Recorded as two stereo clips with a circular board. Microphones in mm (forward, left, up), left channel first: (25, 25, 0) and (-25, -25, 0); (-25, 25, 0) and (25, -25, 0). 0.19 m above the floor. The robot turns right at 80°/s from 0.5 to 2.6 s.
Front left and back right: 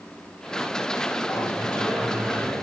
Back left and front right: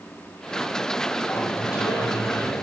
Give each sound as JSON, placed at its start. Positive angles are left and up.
{"t": 1.3, "sound": "a sliding door", "azimuth_deg": 85, "distance_m": 5.0}